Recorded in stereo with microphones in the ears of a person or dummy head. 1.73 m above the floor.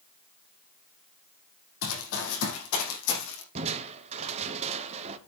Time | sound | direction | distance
1.8 | running footsteps | 65° left (ahead or behind) | 4 m
3.5 | crushing | 35° right (ahead or behind) | 1.0 m